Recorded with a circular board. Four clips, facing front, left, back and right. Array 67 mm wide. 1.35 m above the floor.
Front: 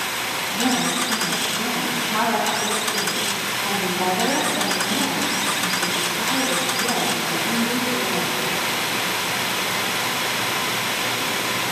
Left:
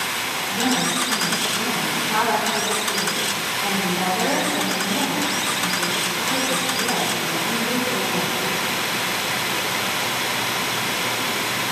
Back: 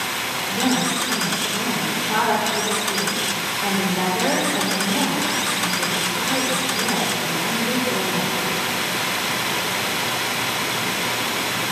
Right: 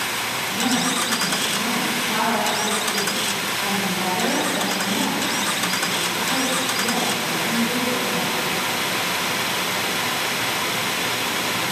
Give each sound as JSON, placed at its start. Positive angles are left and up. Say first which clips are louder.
{"t": 0.5, "sound": "a woman speaking", "louder": "left 1 dB, back 1 dB", "azimuth_deg": 165, "distance_m": 5.0}